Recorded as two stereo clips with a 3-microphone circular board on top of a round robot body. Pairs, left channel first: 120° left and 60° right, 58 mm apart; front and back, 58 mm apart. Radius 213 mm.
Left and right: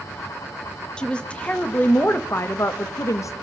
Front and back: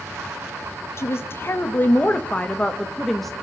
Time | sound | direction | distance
1.0 | a woman speaking | 45° left | 1.8 m